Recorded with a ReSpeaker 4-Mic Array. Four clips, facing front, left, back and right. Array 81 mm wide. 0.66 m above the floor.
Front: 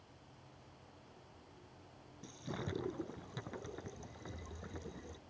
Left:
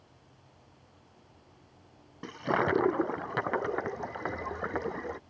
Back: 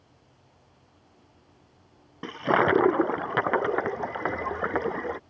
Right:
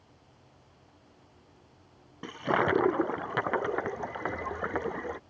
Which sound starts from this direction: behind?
A toilet flushing, at 2.2 s.